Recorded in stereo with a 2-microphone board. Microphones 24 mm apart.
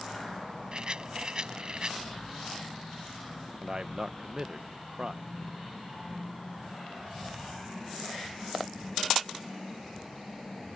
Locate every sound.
0.7 s a rattle: 40° right (ahead or behind)
3.6 s a man speaking: 35° right (ahead or behind)